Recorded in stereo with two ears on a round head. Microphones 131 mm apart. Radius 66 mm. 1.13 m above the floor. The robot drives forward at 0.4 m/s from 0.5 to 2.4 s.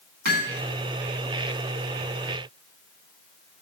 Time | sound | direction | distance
0.2 | hammering | 80° right | 10 m